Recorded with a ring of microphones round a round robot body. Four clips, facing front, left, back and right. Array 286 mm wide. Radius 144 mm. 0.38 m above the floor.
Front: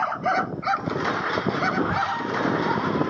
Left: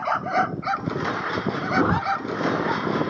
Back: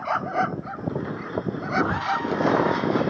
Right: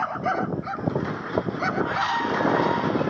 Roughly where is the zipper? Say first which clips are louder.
Left 7 dB, even; left.